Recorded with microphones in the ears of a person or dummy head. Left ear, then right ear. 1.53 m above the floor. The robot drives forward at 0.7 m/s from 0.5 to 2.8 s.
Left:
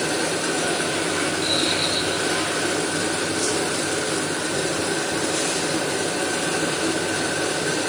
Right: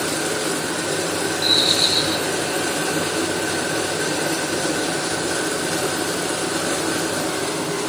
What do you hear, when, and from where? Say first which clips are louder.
1.4 s a bird: right 8 dB; 30° right (ahead or behind)